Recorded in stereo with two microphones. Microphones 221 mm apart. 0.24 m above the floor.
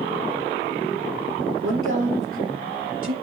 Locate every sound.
1.6 s a woman speaking: 75° right (ahead or behind), 4.5 m